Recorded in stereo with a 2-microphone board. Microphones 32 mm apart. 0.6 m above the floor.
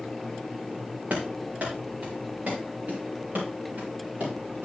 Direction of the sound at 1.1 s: 55° right (ahead or behind).